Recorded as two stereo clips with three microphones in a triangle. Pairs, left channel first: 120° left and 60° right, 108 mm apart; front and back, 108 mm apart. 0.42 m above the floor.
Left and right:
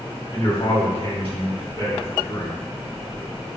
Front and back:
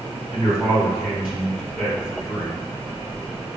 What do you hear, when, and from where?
0.3 s a man speaking: 90° left, 1.8 m